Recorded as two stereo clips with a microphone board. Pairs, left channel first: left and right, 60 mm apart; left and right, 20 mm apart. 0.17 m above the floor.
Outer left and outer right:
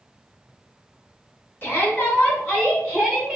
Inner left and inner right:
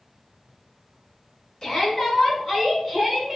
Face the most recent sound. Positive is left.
turn(degrees=-5)  # may be behind; listen again after turning